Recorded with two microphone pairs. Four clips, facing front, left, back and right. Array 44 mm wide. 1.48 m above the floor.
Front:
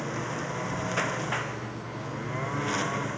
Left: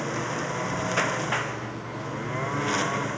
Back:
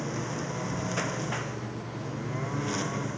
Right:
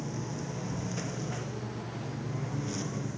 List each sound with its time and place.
0.0 s a lawn mower: 75° left; by 3.2 s 70° left